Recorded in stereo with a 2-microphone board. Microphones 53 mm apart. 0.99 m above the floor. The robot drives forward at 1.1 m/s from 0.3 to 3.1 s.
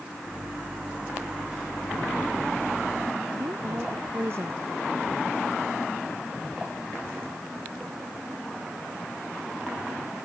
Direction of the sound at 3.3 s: 50° right (ahead or behind).